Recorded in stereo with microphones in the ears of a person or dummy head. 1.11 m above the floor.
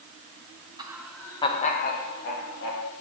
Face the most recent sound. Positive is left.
turn(degrees=65)  # may be behind; listen again after turning